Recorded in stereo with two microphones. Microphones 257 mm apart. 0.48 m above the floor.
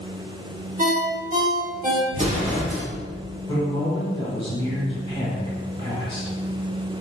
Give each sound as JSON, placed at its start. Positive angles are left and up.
{"t": 0.8, "sound": "a ringtone", "side_deg": -30, "distance_m": 1.0}
{"t": 2.1, "sound": "an explosion", "side_deg": -25, "distance_m": 0.9}
{"t": 3.5, "sound": "a man speaking", "side_deg": 20, "distance_m": 1.3}